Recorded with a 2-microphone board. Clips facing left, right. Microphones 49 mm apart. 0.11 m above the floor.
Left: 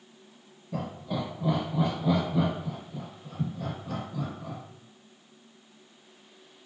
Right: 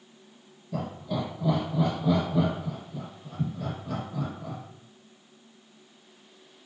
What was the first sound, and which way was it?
Laughter, 20° left (ahead or behind).